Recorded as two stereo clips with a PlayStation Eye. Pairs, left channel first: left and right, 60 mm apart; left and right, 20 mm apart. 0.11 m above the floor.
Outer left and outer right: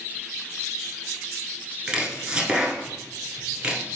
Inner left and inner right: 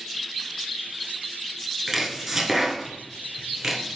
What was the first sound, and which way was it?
Chopping, 15° right (ahead or behind).